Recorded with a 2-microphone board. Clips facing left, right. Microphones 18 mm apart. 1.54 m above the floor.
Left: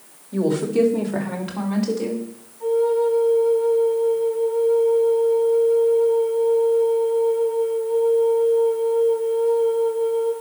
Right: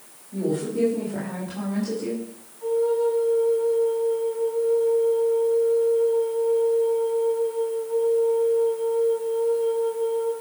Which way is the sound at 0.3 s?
75° left (ahead or behind).